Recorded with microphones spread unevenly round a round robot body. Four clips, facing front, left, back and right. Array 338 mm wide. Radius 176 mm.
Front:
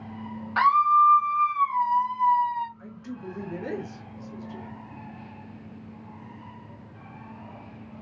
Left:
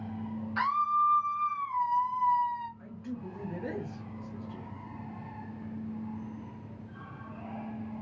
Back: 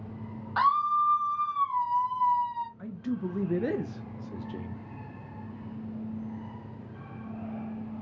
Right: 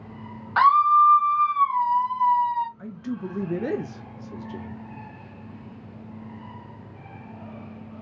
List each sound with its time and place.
0.6 s a scream: 65° right, 1.2 m
2.8 s a man speaking: 95° right, 0.9 m